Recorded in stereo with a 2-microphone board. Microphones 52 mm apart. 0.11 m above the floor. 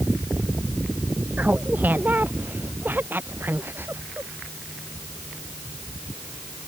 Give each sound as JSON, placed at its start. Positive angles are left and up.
{"t": 1.4, "sound": "laughter", "side_deg": -35}